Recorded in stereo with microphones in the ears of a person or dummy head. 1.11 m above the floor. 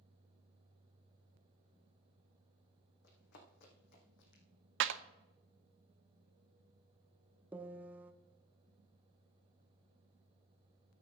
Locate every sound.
3.0 s running footsteps: 70° left (ahead or behind), 4 m; by 4.4 s 65° left (ahead or behind), 3 m
4.8 s a clap: 65° right (ahead or behind), 0.7 m
7.5 s a piano: 10° right (ahead or behind), 0.7 m